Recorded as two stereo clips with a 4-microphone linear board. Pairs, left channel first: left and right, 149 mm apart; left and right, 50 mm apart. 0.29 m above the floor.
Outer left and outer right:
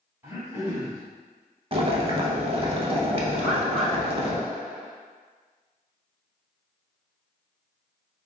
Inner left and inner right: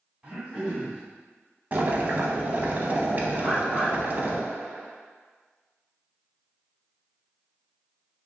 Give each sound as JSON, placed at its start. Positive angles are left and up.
{"t": 0.2, "sound": "throat clearing", "side_deg": -15, "distance_m": 1.8}
{"t": 1.7, "sound": "boiling", "side_deg": -40, "distance_m": 0.6}
{"t": 3.4, "sound": "a bird", "side_deg": 0, "distance_m": 1.7}